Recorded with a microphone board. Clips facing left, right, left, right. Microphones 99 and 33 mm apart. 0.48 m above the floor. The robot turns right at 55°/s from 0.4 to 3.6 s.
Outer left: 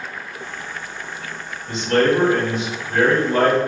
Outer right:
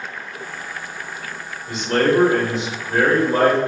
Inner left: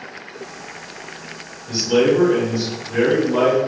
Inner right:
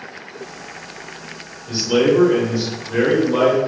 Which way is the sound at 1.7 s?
165° right.